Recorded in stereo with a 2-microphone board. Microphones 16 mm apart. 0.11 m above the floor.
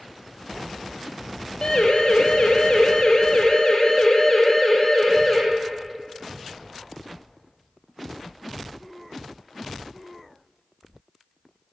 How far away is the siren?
About 4.5 m.